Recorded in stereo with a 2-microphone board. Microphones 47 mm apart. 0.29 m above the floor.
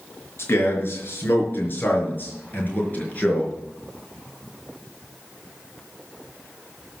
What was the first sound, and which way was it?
A man speaking, 55° left (ahead or behind).